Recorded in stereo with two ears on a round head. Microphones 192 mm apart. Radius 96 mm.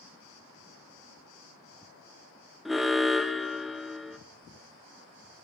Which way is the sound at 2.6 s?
Centre (ahead or behind).